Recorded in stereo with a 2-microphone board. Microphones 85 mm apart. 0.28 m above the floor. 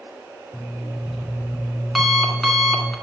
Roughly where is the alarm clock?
Centre.